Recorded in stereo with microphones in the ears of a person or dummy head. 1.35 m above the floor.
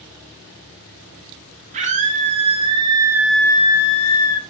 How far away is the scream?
About 1.9 m.